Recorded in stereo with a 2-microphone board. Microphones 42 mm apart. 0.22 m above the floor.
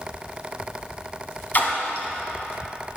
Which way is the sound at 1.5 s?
40° left (ahead or behind).